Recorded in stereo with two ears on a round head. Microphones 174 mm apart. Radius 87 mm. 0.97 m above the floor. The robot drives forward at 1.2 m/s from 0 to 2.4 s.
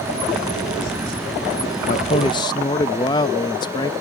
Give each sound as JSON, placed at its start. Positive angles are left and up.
{"t": 1.9, "sound": "a man speaking", "side_deg": 40}